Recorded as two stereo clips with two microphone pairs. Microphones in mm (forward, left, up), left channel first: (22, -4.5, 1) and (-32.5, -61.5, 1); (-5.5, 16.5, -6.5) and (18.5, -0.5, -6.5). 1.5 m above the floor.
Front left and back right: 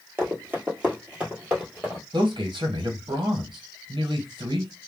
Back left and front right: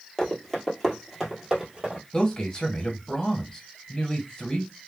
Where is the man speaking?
150° right, 1.3 m.